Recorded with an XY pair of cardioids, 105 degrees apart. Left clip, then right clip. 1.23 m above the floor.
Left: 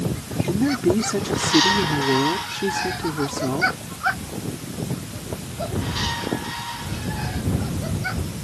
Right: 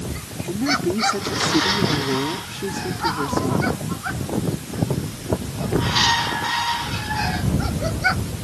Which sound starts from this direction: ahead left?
A woman speaking, at 0.4 s.